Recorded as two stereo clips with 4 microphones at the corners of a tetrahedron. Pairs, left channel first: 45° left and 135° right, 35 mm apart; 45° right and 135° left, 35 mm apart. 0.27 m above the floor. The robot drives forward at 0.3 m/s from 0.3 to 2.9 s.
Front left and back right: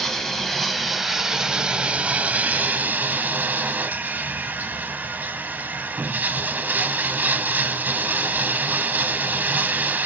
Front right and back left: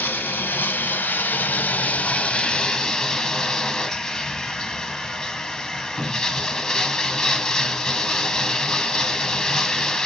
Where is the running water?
35° right, 0.7 m; by 10.1 s 120° right, 0.5 m.